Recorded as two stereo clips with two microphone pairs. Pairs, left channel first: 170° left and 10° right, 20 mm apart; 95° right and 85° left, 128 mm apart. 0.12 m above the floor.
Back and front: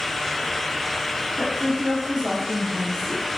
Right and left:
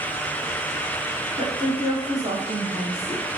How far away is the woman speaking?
About 1.5 m.